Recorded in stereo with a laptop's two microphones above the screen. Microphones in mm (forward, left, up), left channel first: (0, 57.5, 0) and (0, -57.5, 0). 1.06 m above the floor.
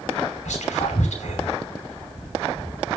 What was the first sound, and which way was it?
Whispering, 85° left.